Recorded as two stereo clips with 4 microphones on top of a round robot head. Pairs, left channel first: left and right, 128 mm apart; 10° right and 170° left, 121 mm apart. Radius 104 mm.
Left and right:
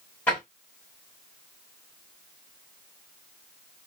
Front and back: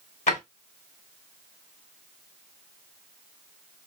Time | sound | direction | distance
0.3 | a drawer | 10° left | 1.3 m